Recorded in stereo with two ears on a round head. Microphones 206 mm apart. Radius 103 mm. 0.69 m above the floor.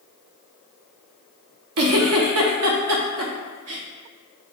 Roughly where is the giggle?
Right.